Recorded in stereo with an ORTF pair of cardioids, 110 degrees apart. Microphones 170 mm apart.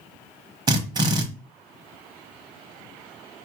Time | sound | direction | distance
0.7 | a drill | 25° right | 1.0 m